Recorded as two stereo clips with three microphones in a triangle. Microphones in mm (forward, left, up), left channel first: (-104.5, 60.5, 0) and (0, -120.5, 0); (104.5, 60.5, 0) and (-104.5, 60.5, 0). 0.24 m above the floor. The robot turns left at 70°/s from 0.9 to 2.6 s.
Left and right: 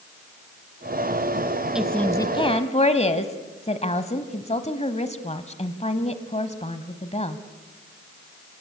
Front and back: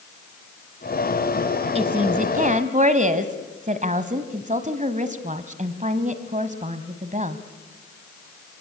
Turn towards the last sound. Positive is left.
turn(degrees=155)